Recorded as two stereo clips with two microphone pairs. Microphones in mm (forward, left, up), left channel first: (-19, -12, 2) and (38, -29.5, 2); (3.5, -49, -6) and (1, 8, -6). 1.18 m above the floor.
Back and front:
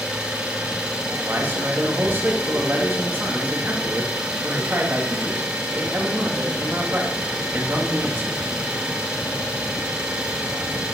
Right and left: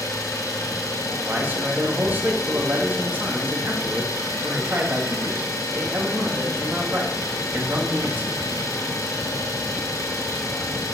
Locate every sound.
0.0 s an engine running: 90° right, 3.5 m
1.2 s a man speaking: 35° left, 2.5 m